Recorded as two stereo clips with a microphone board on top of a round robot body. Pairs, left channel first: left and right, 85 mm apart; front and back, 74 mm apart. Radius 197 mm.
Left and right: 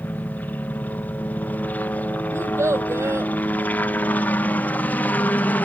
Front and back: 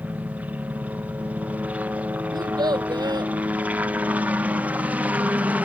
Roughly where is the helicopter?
Behind left.